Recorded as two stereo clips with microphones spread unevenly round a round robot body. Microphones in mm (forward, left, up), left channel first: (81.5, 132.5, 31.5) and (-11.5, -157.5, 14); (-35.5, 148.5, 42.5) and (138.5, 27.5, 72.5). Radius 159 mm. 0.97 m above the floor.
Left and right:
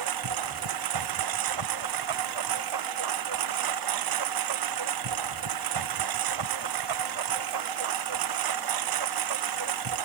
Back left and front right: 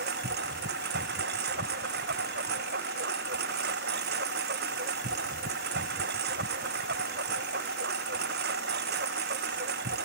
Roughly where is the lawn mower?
Right.